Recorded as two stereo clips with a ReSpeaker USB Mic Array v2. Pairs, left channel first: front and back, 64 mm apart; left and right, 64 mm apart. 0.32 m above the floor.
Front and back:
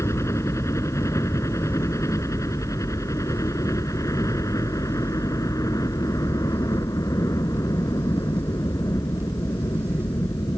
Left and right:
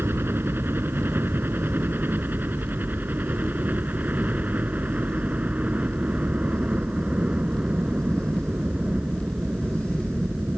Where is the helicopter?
40° right; by 10.6 s 15° right.